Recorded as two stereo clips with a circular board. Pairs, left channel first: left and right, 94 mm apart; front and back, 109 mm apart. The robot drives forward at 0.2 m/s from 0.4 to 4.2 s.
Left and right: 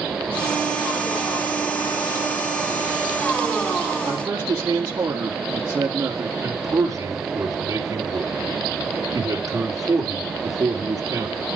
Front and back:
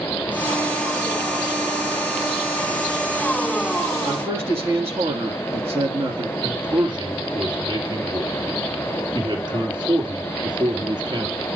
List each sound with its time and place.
4.0 s a man speaking: 130° right, 3 m
6.4 s a man speaking: 140° right, 3.5 m